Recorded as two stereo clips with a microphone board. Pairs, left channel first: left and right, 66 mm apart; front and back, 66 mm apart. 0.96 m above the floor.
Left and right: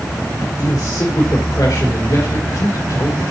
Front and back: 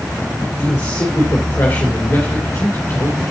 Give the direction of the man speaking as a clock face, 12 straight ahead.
10 o'clock.